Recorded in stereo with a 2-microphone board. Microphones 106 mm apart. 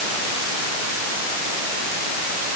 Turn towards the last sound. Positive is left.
No sound to turn to.